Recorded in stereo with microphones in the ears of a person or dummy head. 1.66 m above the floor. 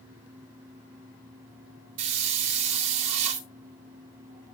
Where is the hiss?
35° right (ahead or behind), 2.5 m.